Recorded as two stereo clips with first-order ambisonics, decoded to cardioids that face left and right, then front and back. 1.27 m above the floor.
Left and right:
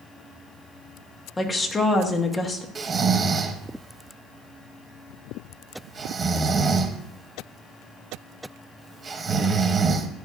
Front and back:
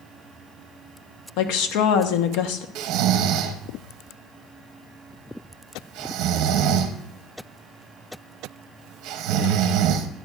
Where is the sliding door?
I don't hear a sliding door.